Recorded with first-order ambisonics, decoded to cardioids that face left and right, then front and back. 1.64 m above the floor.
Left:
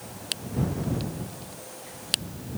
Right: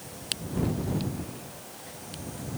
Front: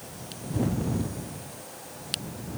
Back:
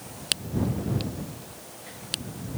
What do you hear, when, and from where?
Only background noise.